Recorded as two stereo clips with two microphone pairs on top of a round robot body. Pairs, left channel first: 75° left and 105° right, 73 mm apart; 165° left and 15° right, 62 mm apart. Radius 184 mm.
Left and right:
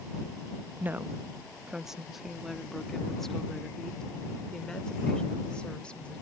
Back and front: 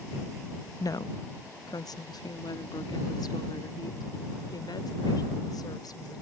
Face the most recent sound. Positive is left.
turn(degrees=150)